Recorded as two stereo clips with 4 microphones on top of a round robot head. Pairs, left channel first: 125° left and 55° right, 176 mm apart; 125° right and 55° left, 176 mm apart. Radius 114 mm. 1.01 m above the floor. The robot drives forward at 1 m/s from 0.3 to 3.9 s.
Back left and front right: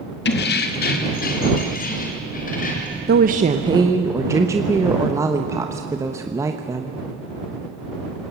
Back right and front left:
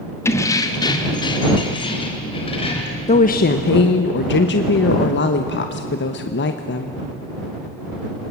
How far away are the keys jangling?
About 1.2 m.